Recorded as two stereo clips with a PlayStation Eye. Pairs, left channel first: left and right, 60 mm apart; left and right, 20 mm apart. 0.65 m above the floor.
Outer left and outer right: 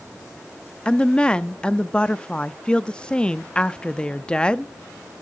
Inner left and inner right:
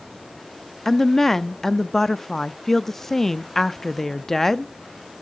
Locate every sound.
0.8 s a woman speaking: 15° left (ahead or behind), 0.6 m